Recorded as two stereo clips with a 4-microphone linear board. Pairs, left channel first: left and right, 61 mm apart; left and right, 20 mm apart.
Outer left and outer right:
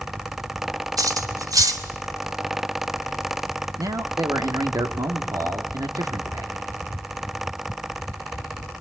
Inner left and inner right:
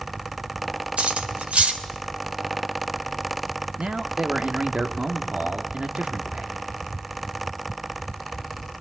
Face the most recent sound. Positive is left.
turn(degrees=-75)  # may be behind; listen again after turning